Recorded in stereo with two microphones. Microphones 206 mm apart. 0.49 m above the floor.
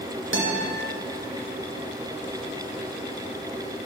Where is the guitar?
70° right (ahead or behind), 0.6 m.